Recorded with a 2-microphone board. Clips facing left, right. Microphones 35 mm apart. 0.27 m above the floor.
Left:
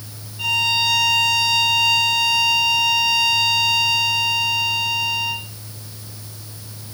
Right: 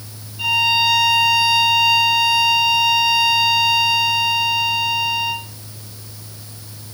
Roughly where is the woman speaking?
I don't hear a woman speaking.